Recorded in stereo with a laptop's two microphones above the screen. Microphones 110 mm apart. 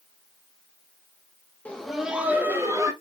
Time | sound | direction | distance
1.6 | laughter | 10° left (ahead or behind) | 0.7 m